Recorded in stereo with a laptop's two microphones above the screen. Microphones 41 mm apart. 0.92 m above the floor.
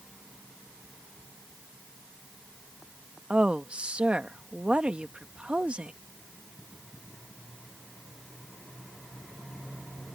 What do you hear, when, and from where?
3.3 s a woman speaking: 30° right (ahead or behind)